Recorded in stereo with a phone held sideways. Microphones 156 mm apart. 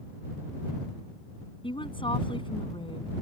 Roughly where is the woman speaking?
Left.